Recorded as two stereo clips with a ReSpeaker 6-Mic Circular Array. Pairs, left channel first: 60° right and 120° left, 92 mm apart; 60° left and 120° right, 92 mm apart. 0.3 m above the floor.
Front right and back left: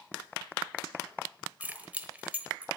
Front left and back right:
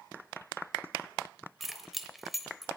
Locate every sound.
1.6 s keys jangling: 150° left, 0.8 m